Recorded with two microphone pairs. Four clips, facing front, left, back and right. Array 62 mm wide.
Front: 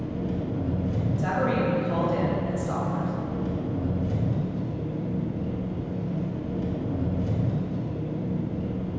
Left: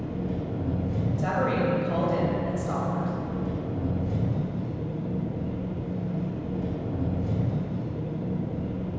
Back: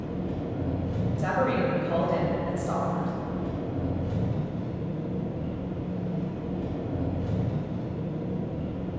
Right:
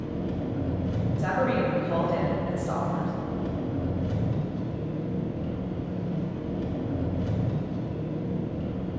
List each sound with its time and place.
0.0 s an engine running: 80° right, 1.3 m
1.2 s a woman speaking: 170° left, 1.2 m